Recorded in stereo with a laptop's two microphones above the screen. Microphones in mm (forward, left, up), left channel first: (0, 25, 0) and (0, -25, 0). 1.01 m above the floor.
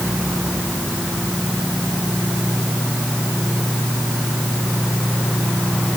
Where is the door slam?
No door slam in this recording.